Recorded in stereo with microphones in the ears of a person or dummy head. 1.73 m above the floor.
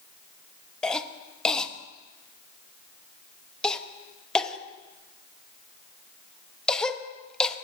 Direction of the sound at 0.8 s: 5° left (ahead or behind).